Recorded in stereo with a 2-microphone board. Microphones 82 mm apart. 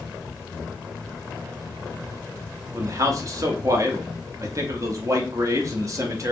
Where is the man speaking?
40° right (ahead or behind), 0.7 m.